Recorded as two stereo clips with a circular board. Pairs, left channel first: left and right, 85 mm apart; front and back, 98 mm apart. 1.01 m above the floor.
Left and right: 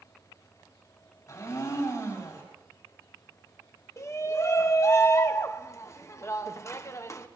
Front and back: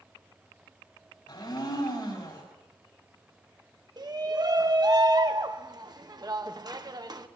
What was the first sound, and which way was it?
A blender, 35° left.